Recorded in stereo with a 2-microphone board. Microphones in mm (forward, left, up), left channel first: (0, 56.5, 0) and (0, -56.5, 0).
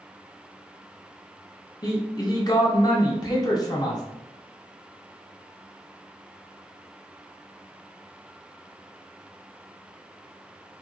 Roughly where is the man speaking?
Left.